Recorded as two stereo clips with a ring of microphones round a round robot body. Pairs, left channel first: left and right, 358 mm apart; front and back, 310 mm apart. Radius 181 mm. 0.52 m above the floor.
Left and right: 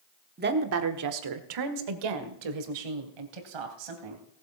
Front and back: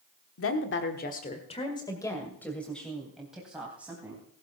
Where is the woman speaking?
30° right, 1.2 m; by 4.2 s 95° right, 4 m.